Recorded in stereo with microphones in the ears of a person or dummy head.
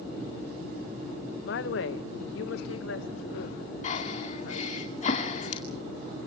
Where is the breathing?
35° left (ahead or behind), 2 m.